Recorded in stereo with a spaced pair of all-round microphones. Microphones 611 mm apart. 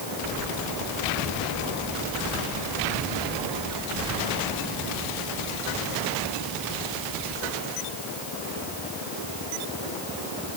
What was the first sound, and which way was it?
Only background noise.